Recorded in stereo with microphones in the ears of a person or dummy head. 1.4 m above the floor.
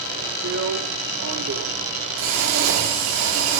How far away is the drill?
About 2 m.